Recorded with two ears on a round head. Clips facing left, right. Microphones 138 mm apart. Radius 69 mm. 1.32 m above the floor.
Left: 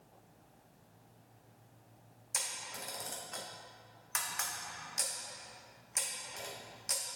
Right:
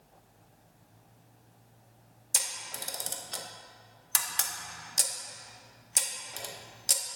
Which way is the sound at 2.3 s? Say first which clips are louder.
Right 2 dB; 35° right (ahead or behind).